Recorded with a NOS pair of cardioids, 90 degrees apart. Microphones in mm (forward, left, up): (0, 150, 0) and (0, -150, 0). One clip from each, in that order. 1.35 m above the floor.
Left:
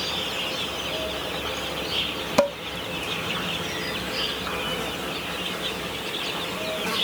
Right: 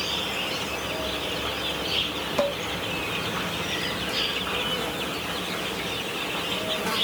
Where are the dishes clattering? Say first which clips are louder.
Left 4 dB; 55° left, 0.9 m.